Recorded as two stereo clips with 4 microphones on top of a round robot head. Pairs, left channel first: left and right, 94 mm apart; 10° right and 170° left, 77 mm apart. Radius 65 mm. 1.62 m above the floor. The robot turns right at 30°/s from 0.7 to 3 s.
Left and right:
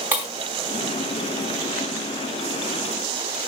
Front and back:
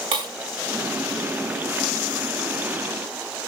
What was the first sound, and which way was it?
Breaking glass, 165° right.